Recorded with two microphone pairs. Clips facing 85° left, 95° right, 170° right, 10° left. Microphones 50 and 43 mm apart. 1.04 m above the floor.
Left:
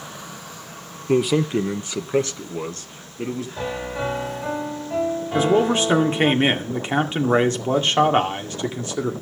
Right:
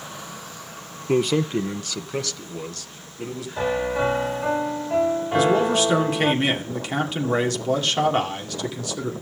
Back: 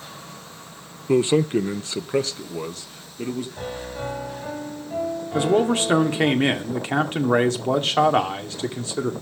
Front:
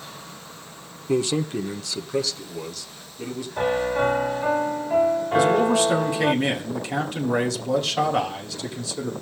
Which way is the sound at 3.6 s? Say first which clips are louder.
Right 8 dB, front 10 dB; 25° right.